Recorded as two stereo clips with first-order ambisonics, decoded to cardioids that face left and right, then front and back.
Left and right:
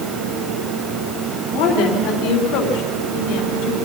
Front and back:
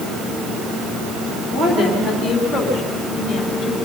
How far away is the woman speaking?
About 4 m.